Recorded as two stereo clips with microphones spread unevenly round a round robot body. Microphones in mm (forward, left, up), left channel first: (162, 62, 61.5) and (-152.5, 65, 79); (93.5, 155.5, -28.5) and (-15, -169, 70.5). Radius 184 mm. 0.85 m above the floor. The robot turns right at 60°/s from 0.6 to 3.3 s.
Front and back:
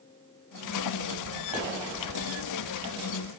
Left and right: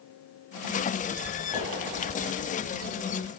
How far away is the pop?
About 1.3 m.